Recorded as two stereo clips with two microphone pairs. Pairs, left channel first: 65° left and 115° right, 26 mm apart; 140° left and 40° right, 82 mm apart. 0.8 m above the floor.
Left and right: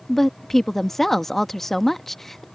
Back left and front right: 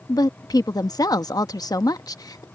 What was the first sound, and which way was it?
A woman speaking, 145° left.